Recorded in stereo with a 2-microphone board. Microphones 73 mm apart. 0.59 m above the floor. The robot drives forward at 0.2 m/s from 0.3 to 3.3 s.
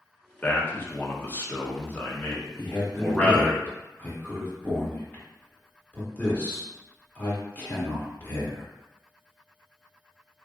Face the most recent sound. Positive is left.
turn(degrees=20)  # may be behind; listen again after turning